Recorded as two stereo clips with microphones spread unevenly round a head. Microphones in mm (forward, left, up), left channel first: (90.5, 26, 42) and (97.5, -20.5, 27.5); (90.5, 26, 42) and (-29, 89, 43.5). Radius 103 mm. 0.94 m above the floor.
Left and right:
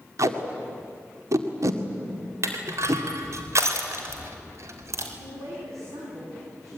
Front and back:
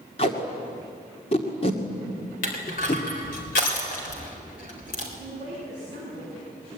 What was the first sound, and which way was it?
Tape being pulled, 85° right.